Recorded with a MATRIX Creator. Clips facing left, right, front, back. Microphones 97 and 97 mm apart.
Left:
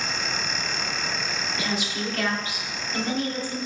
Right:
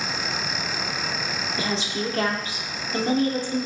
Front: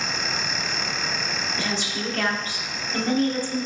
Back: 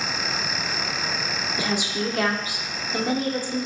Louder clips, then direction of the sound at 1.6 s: Right 3 dB, back 5 dB; 115° right.